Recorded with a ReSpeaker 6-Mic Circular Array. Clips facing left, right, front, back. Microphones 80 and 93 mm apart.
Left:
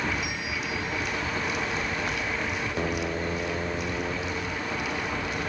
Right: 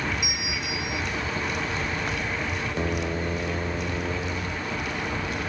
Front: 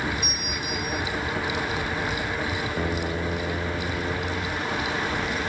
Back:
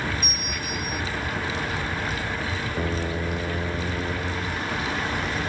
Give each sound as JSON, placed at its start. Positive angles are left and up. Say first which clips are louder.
{"t": 0.2, "sound": "a bell", "louder": "even, front 1 dB", "azimuth_deg": -15}